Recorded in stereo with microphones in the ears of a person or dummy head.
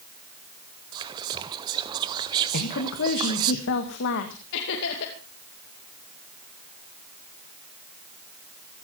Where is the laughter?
70° left (ahead or behind), 2.5 m.